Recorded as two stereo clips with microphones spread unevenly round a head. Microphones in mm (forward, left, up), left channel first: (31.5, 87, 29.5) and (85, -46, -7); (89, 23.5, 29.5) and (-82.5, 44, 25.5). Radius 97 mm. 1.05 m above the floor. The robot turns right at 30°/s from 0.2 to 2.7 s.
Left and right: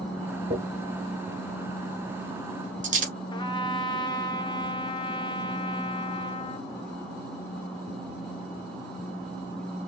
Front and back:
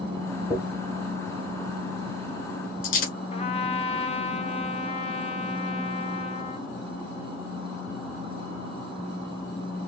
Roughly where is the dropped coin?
Right.